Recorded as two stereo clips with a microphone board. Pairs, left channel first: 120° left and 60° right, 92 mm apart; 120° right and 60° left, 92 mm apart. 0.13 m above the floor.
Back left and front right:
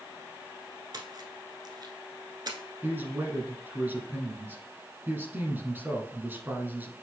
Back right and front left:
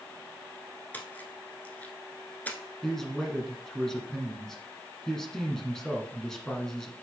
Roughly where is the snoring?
No snoring in this recording.